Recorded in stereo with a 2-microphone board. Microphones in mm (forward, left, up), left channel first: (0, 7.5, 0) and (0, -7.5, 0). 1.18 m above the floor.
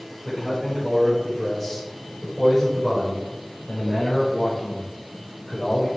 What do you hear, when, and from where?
0.2 s a man speaking: 5° left (ahead or behind), 5.5 m; by 5.9 s 45° left (ahead or behind), 4 m